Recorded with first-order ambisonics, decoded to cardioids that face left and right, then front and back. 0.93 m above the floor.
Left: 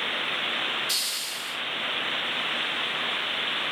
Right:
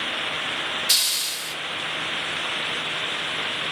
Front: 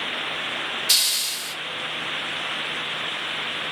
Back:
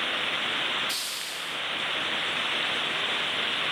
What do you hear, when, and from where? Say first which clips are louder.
0.9 s a hiss: right 6 dB, front 10 dB; 35° right, 1.5 m